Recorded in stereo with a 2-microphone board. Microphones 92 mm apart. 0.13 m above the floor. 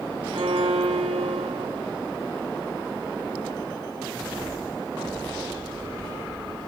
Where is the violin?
70° right (ahead or behind), 3 m.